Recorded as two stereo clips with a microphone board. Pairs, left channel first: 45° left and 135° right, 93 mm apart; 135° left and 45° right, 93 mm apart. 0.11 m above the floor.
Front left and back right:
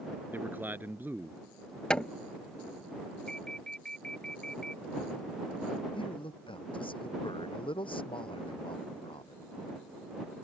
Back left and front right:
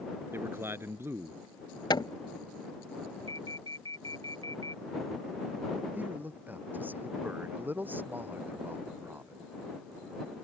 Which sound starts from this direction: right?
A man speaking, at 0.3 s.